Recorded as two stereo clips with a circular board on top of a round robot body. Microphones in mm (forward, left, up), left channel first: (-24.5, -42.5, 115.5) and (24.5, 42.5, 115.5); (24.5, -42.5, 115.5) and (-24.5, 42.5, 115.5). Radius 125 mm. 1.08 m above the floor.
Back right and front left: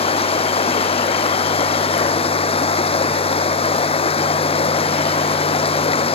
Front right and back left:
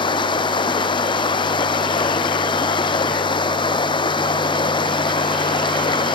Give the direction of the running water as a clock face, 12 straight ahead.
3 o'clock.